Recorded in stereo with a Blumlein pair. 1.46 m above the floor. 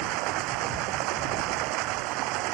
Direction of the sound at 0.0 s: 40° right.